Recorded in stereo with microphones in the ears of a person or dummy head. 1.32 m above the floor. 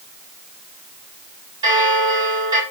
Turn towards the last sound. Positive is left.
turn(degrees=-25)  # may be behind; listen again after turning